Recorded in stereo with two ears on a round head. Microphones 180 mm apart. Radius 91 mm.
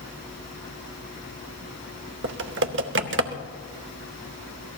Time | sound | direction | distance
2.2 | typing on a keyboard | 60° right (ahead or behind) | 0.9 m